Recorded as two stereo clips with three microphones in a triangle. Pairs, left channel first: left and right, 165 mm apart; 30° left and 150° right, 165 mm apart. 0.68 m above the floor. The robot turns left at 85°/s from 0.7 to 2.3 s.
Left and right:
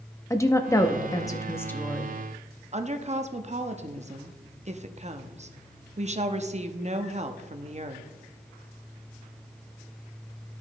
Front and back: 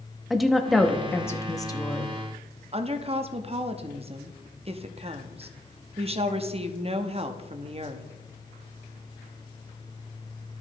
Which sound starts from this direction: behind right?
A woman speaking, at 2.7 s.